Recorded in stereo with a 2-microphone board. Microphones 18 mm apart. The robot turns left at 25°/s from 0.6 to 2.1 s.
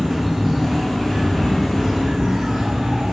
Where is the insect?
15° right, 9 m; by 3.1 s 55° right, 9 m.